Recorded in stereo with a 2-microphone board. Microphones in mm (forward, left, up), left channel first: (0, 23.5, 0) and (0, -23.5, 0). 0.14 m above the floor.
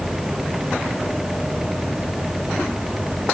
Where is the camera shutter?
No camera shutter in this recording.